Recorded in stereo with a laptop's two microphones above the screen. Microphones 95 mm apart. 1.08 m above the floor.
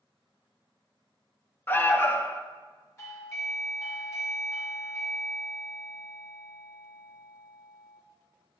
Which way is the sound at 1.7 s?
25° left (ahead or behind).